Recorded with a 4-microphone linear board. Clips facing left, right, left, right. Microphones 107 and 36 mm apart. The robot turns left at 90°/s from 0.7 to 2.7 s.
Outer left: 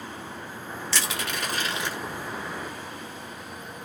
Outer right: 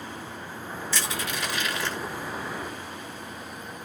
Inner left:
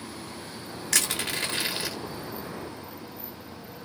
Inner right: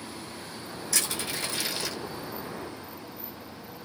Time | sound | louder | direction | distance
0.9 | crushing | outer left 1 dB, inner left 4 dB | 75° left (ahead or behind) | 0.8 m